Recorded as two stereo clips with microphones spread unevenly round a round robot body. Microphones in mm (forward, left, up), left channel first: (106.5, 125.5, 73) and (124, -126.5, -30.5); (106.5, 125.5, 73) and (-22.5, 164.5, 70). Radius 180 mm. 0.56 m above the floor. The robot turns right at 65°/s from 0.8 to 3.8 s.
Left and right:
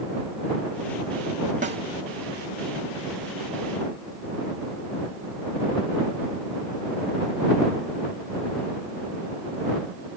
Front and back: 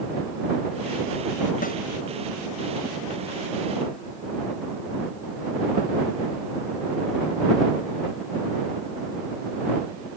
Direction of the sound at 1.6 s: 35° right.